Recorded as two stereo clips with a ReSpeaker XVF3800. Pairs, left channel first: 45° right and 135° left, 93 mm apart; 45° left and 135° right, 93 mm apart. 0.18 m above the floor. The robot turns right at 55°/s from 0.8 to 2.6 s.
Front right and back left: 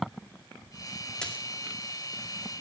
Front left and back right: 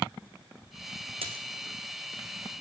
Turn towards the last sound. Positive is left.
turn(degrees=-50)